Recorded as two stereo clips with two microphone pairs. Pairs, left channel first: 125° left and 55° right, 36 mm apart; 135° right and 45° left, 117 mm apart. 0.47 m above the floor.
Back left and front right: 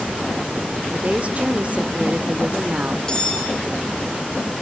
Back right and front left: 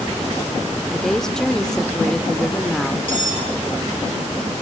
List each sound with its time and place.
0.9 s a woman speaking: 55° right, 1.5 m
3.1 s cutlery clinking: 55° left, 5.5 m